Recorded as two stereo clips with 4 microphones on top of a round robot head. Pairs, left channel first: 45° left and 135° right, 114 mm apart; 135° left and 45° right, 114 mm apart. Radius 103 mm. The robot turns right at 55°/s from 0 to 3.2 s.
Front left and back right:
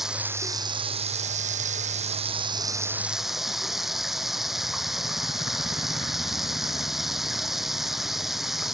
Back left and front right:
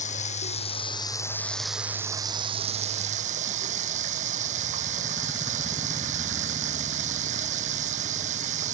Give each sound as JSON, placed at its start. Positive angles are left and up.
{"t": 0.0, "sound": "running water", "azimuth_deg": 135}